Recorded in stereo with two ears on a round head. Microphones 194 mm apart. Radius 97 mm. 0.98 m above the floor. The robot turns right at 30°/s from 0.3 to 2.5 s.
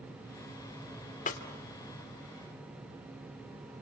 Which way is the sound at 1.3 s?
35° left (ahead or behind).